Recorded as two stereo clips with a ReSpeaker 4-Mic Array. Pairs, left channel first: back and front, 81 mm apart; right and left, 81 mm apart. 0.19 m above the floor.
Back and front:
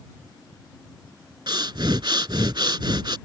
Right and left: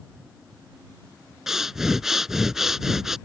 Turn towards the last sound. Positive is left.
turn(degrees=5)